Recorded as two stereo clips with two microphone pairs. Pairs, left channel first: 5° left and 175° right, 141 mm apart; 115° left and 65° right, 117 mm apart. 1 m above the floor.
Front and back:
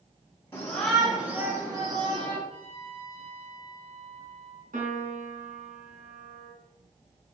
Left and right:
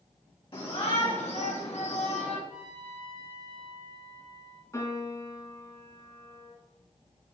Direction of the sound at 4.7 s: 175° left.